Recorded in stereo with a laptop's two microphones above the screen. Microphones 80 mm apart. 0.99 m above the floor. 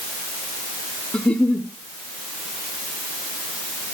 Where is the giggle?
10° left (ahead or behind), 0.7 m.